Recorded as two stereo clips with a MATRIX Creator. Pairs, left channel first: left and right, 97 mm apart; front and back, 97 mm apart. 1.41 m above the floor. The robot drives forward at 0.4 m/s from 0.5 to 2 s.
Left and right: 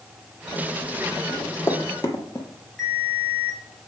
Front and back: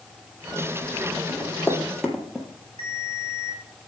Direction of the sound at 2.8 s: 175° left.